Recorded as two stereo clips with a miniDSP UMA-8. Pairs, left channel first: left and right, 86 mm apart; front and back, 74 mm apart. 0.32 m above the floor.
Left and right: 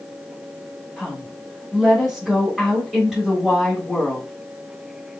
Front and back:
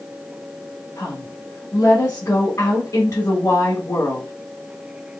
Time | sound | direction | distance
1.0 | a woman speaking | 5° right | 1.3 m